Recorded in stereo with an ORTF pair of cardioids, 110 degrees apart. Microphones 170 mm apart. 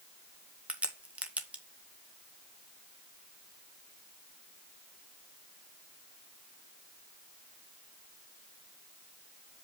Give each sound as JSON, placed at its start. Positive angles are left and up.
{"t": 0.7, "sound": "a crack", "azimuth_deg": -10, "distance_m": 1.6}